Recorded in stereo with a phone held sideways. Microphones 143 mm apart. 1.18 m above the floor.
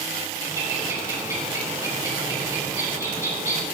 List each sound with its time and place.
0.4 s a bird: 20° right (ahead or behind), 8 m